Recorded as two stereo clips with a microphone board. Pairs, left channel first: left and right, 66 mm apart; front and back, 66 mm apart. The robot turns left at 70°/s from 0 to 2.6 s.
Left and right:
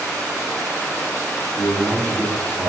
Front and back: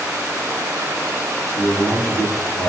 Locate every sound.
1.6 s a man speaking: 100° left, 1.7 m; by 2.7 s 25° left, 1.7 m